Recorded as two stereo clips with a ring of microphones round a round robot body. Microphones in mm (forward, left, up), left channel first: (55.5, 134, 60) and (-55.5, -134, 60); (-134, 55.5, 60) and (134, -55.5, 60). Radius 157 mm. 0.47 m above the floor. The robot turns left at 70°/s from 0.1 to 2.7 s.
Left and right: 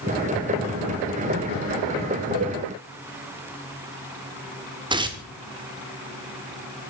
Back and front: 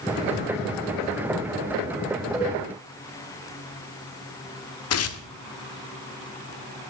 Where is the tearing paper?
175° left, 1.2 m.